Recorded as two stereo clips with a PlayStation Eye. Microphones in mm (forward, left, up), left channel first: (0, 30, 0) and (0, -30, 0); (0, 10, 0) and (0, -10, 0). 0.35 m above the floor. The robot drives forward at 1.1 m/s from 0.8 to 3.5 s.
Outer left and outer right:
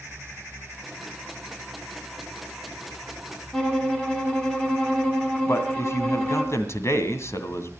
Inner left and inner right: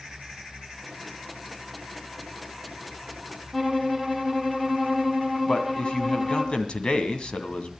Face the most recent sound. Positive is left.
turn(degrees=55)  # may be behind; listen again after turning